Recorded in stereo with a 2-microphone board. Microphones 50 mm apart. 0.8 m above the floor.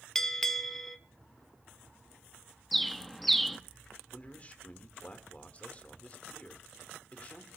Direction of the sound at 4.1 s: 30° left (ahead or behind).